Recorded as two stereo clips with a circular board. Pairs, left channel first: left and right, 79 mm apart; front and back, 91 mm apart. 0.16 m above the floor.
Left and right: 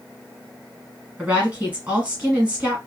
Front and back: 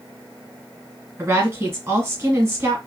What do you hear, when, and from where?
1.2 s a woman speaking: 150° right, 1.5 m